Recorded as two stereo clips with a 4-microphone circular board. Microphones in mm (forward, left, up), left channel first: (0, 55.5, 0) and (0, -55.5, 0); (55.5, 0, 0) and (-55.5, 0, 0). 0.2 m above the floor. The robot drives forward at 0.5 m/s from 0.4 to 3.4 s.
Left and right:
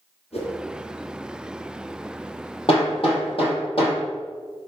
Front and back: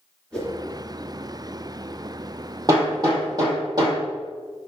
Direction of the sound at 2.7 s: 125° left.